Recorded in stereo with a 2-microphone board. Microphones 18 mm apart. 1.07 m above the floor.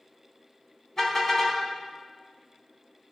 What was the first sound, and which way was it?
A car horn, 20° left (ahead or behind).